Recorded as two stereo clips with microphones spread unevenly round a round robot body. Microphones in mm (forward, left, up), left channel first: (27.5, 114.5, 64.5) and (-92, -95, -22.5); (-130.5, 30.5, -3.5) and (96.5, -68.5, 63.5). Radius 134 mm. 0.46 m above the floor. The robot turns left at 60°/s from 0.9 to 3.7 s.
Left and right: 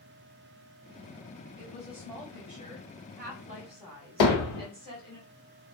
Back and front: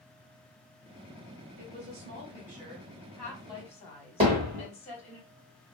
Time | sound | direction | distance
1.6 | a woman speaking | 35° right | 1.8 m
4.2 | hammering | 45° left | 1.5 m